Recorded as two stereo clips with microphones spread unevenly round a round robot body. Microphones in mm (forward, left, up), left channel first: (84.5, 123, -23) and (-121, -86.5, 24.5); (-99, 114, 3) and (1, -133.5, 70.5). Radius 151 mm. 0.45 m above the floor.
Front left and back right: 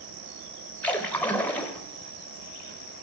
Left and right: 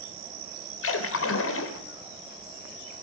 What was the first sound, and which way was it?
A splash, 125° left.